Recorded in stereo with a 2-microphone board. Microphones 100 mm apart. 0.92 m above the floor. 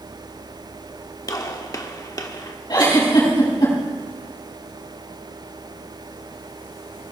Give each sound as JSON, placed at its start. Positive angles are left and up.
{"t": 1.3, "sound": "a gunshot", "side_deg": 35, "distance_m": 0.9}
{"t": 2.7, "sound": "a giggle", "side_deg": 45, "distance_m": 6.5}